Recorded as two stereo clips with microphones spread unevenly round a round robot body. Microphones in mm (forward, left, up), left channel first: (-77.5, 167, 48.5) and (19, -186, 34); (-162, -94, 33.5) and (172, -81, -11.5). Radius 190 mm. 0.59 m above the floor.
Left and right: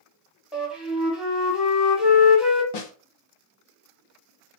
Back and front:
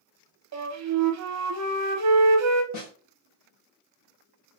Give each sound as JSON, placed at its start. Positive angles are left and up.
{"t": 0.5, "sound": "a flute", "azimuth_deg": 10, "distance_m": 1.1}
{"t": 2.7, "sound": "a snare drum", "azimuth_deg": 125, "distance_m": 1.4}